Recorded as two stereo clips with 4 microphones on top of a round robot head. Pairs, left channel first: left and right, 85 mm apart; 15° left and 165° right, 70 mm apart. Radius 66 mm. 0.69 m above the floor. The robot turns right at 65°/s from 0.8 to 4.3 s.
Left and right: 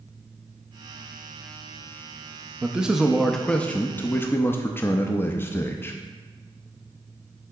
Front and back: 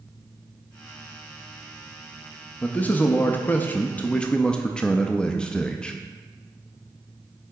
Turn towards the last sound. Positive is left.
turn(degrees=75)